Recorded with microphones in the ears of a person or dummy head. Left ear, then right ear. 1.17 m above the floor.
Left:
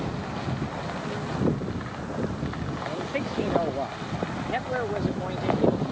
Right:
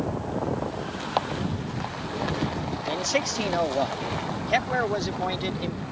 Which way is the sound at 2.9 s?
75° right (ahead or behind).